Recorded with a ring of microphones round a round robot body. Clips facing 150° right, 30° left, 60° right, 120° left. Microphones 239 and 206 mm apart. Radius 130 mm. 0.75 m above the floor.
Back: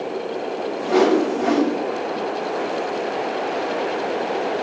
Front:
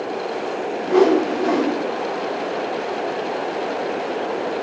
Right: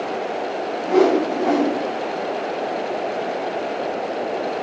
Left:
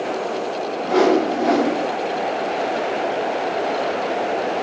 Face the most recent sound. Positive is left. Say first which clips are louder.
# front 1 dB, even
turn(degrees=-160)